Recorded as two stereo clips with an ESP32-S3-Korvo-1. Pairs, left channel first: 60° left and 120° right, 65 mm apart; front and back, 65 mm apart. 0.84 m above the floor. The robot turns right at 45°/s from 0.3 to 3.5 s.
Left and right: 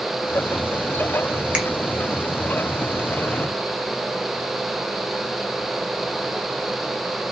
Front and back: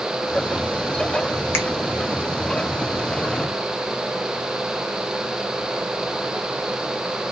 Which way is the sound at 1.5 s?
50° right.